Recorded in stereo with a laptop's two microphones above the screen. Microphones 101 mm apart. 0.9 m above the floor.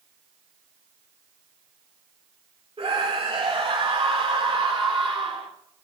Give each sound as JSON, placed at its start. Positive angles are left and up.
{"t": 2.8, "sound": "a scream", "side_deg": -75, "distance_m": 3.5}